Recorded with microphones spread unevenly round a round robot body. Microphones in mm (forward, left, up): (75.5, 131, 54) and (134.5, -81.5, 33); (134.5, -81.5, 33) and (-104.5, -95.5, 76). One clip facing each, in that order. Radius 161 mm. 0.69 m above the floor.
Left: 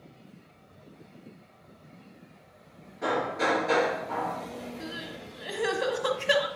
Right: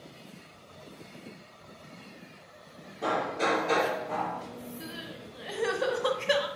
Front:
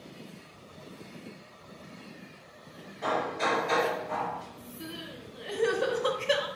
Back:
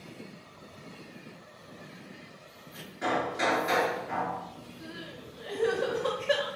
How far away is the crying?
About 1.7 m.